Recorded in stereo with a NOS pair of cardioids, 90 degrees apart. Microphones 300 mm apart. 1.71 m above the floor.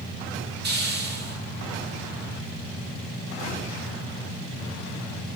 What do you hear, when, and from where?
0.6 s a hiss: 35° right, 3 m